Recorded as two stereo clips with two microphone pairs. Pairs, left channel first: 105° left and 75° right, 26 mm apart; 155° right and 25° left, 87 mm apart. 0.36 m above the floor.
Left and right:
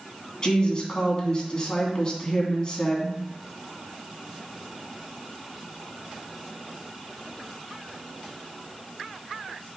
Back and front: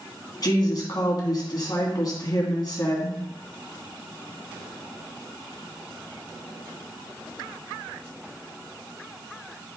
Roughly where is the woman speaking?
Behind.